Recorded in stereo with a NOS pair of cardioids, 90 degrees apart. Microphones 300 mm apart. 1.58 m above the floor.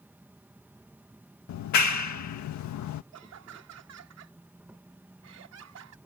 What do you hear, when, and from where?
0.0 s an insect: 5° right
1.5 s a clap: 70° left
3.1 s laughter: 55° right